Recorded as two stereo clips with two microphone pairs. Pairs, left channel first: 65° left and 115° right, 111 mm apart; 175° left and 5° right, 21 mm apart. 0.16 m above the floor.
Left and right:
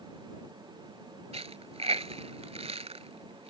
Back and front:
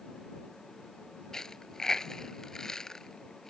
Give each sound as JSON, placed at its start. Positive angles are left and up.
{"t": 1.3, "sound": "a dropped coin", "azimuth_deg": -125}